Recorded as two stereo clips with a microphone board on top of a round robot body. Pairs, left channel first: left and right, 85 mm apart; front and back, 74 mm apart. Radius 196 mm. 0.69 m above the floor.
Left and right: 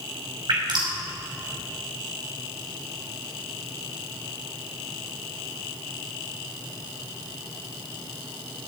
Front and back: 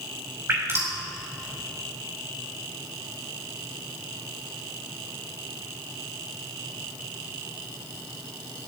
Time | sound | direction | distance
0.5 | dripping | 125° right | 5 m